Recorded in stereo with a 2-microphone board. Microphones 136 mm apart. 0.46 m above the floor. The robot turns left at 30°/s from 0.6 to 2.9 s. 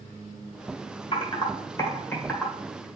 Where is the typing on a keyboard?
40° left (ahead or behind), 1.6 m; by 2.9 s 5° right (ahead or behind), 1.6 m.